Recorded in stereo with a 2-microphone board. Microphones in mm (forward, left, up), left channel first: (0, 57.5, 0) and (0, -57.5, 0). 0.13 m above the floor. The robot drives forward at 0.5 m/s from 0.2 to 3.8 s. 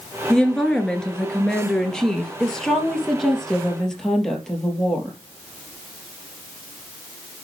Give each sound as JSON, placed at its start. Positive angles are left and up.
{"t": 0.3, "sound": "a woman speaking", "side_deg": 10, "distance_m": 2.0}